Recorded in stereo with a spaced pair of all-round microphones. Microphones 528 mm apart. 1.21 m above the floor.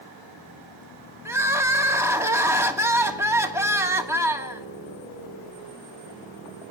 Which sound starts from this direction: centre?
Crying, at 1.2 s.